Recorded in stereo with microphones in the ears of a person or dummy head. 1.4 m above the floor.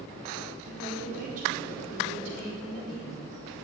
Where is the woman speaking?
55° right (ahead or behind), 5.5 m.